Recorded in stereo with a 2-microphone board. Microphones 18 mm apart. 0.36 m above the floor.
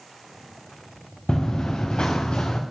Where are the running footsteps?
55° left (ahead or behind), 2 m; by 2.6 s 70° left (ahead or behind), 2.5 m.